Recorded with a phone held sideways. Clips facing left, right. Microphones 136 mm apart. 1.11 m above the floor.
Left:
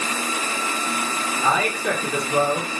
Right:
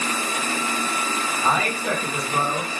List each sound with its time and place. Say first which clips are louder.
1.4 s a man speaking: left 2 dB; 75° left (ahead or behind), 0.8 m